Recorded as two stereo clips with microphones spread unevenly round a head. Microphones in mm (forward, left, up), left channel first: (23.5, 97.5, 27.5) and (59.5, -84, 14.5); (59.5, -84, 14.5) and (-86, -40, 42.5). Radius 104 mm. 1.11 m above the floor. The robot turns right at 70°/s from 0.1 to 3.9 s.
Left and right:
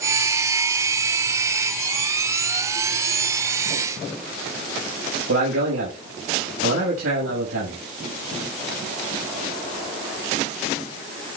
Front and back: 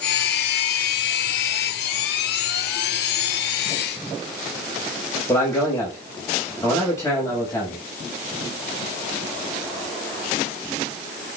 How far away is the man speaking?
About 6.5 m.